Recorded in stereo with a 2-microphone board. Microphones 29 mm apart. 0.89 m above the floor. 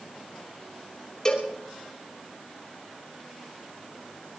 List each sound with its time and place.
1.2 s a cowbell: 20° left (ahead or behind), 3 m